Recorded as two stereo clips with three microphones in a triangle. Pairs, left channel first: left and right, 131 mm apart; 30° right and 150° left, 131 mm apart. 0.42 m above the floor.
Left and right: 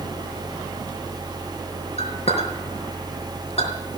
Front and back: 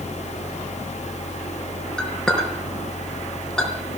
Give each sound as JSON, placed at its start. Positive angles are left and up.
{"t": 2.0, "sound": "a clink", "azimuth_deg": 55, "distance_m": 4.0}